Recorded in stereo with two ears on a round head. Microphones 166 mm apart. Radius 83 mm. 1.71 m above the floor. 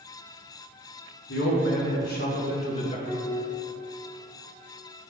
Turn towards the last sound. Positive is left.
turn(degrees=10)  # may be behind; listen again after turning